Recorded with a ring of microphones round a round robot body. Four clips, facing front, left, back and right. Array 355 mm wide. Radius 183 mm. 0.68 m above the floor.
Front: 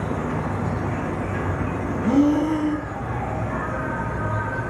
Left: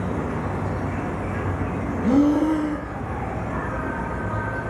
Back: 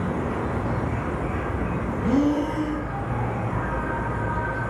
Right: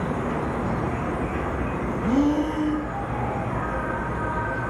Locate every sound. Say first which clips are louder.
0.0 s an insect: right 1 dB, front 1 dB; 20° left, 1.0 m
2.0 s breathing: left 4 dB, front 4 dB; 60° left, 0.6 m